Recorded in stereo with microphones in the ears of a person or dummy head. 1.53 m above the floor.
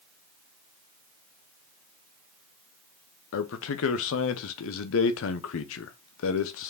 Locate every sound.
3.3 s a man speaking: 75° left (ahead or behind), 0.8 m